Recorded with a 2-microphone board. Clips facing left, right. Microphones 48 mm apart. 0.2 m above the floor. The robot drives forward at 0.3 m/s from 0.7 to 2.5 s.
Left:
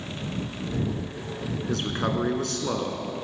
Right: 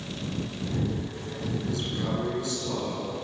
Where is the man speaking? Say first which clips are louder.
Left 6 dB; 60° left (ahead or behind), 2 m.